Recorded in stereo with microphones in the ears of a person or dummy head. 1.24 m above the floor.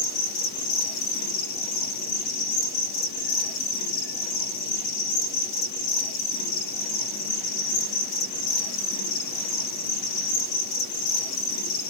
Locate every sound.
0.0 s an insect: 45° left (ahead or behind), 1.0 m